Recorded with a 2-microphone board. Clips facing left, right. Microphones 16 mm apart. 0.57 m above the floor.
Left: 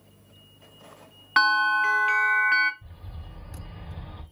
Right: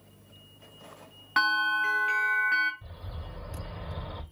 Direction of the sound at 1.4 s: 20° left (ahead or behind).